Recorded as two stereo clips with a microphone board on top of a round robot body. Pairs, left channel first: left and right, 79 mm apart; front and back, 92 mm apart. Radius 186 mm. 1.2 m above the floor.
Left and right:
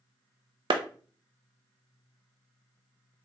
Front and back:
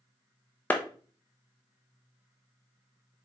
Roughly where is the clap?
Right.